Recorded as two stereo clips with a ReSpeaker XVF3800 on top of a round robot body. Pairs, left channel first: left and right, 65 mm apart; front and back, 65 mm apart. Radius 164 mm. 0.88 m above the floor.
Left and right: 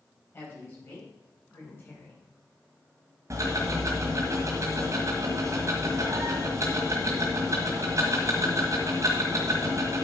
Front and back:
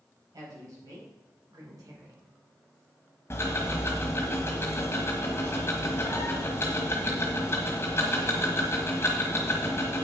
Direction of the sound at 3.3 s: 50° right.